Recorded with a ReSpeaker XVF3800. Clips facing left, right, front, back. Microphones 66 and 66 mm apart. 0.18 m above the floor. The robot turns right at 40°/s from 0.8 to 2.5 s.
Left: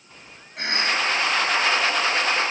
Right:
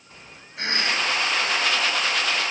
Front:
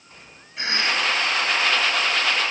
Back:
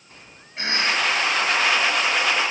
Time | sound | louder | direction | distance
0.6 | a cough | left 1 dB, back 1 dB | 120° left | 5 m